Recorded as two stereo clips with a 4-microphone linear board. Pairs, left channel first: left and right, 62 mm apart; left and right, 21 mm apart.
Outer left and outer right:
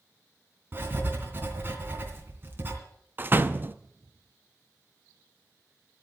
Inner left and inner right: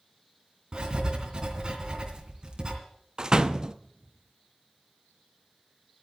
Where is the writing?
35° right (ahead or behind), 3 m.